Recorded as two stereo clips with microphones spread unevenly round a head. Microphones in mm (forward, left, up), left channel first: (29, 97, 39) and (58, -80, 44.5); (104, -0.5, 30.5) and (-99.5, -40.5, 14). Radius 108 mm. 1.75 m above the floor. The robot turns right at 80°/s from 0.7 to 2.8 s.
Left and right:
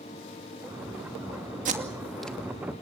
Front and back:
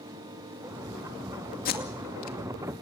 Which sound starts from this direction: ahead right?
Tape being pulled, at 1.6 s.